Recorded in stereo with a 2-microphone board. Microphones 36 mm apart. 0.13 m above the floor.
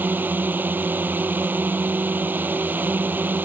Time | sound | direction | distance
0.0 | a drone | 65° right (ahead or behind) | ?